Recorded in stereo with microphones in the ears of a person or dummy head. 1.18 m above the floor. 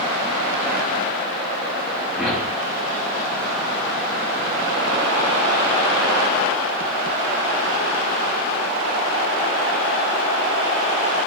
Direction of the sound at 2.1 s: Centre (ahead or behind).